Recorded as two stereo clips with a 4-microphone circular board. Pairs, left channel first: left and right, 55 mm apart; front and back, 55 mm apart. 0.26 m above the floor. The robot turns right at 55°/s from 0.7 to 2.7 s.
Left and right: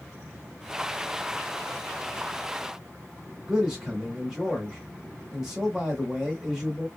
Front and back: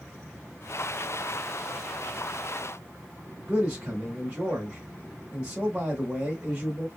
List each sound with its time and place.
3.5 s a man speaking: 165° right, 1.0 m